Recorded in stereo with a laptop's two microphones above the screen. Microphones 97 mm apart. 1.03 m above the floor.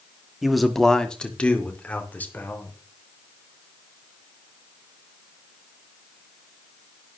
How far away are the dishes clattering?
No dishes clattering in this recording.